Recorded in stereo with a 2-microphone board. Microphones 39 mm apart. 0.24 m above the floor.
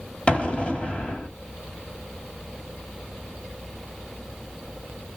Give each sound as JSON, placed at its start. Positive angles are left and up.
{"t": 0.3, "sound": "an explosion", "side_deg": 30, "distance_m": 1.4}